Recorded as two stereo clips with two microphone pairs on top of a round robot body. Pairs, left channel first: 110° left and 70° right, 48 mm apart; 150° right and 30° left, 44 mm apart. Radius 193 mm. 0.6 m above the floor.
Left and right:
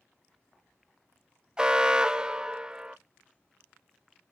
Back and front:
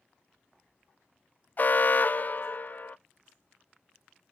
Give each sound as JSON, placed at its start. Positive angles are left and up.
{"t": 1.6, "sound": "an alarm", "azimuth_deg": -135, "distance_m": 0.5}